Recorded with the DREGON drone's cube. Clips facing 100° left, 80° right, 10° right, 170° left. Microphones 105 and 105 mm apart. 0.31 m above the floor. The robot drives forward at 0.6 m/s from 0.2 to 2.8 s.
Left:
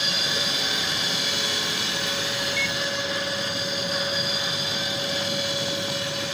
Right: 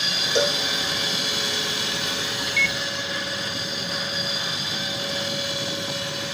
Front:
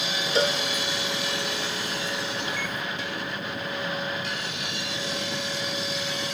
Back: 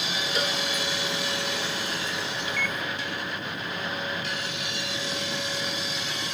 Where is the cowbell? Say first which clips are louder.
Right 8 dB, front 7 dB; 70° right; by 0.6 s 75° right.